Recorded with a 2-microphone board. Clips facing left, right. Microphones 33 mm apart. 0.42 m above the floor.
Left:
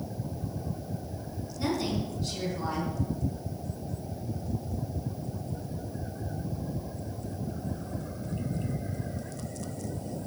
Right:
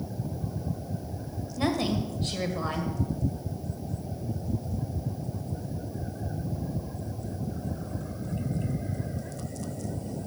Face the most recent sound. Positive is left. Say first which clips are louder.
# right 3 dB
turn(degrees=-55)  # may be behind; listen again after turning